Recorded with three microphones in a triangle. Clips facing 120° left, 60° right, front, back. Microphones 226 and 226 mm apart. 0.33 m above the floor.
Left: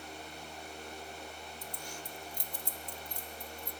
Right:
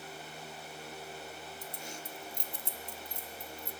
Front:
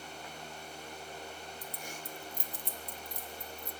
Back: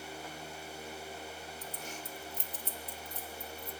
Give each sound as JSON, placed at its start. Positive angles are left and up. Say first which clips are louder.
{"t": 1.6, "sound": "keys jangling", "louder": "right 1 dB, back 1 dB", "azimuth_deg": -60, "distance_m": 0.5}